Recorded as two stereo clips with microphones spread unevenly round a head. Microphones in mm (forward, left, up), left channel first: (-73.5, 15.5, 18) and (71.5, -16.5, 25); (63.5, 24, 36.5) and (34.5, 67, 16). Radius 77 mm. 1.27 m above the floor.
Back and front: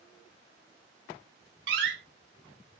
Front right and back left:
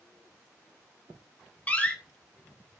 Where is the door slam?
Straight ahead, 3.5 m.